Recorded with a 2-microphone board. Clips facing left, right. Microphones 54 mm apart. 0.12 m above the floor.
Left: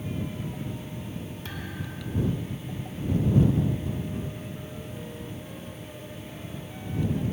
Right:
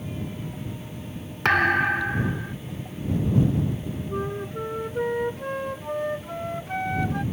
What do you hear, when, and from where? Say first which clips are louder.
1.4 s a thud: right 18 dB; 70° right (ahead or behind)
4.1 s a flute: right 7 dB; 65° right (ahead or behind)